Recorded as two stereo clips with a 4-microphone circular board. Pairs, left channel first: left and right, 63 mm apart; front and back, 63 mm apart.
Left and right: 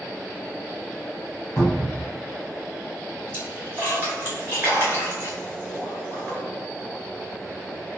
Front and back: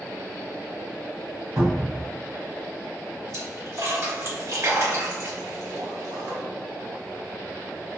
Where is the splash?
150° right, 2.0 m.